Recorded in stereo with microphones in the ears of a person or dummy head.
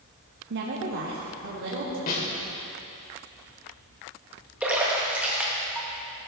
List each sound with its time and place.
0.5 s a woman speaking: 60° right (ahead or behind), 1.1 m; by 2.0 s 70° right (ahead or behind), 3 m
2.1 s a snare drum: 45° left (ahead or behind), 2.5 m
4.6 s a splash: 10° right (ahead or behind), 1.8 m